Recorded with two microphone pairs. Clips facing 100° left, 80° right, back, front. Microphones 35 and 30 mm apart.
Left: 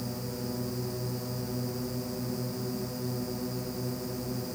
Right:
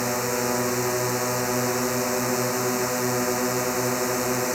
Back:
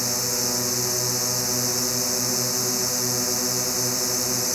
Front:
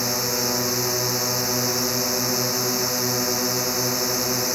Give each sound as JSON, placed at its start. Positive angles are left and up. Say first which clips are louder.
{"t": 0.0, "sound": "a drone", "louder": "right 12 dB, front 2 dB", "azimuth_deg": -70}